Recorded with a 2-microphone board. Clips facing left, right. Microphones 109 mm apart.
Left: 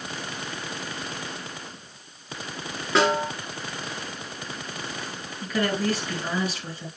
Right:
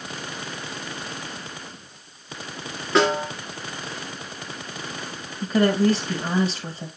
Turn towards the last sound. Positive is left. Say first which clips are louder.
# right 6 dB
turn(degrees=-25)  # may be behind; listen again after turning